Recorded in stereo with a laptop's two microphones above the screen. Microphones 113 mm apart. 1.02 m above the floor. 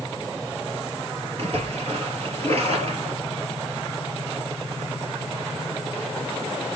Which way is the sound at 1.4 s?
60° right (ahead or behind).